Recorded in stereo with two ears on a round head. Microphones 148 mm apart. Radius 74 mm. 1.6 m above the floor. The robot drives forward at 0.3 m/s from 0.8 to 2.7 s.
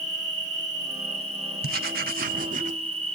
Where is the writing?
60° right (ahead or behind), 0.7 m; by 2.8 s 50° right (ahead or behind), 0.8 m.